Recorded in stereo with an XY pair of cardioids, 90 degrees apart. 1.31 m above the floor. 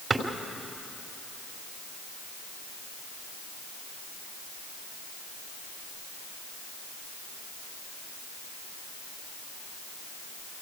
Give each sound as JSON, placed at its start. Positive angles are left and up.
{"t": 0.1, "sound": "a drawer", "azimuth_deg": -30, "distance_m": 3.0}